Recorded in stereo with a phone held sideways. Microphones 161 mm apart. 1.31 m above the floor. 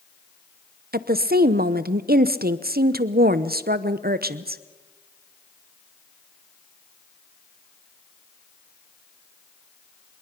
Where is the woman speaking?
70° right (ahead or behind), 0.8 m.